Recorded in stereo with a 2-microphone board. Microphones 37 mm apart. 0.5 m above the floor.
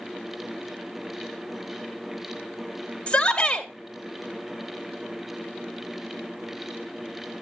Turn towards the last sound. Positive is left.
turn(degrees=20)  # may be behind; listen again after turning